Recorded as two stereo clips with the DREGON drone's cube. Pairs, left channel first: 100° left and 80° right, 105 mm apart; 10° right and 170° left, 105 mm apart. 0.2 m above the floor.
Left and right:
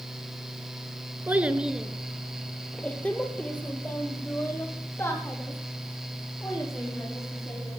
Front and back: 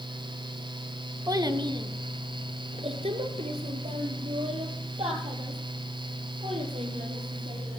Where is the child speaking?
145° right, 1.2 m; by 7.8 s 165° left, 6 m.